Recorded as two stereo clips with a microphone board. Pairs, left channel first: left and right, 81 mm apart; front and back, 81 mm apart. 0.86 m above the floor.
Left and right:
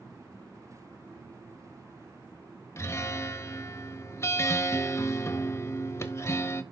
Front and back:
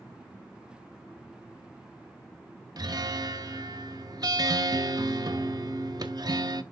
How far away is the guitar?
About 1.0 m.